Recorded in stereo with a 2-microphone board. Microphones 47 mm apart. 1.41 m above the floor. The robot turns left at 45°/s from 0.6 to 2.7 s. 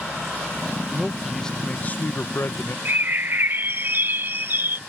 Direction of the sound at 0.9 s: 170° right.